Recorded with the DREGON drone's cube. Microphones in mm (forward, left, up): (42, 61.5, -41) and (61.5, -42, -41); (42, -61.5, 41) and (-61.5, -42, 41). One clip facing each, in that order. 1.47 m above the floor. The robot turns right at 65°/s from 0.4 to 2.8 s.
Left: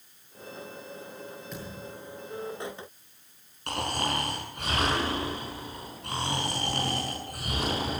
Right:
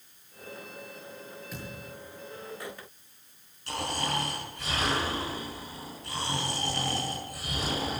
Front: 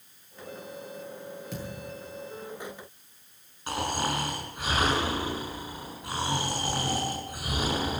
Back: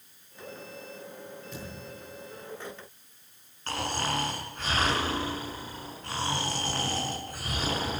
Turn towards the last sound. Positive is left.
turn(degrees=65)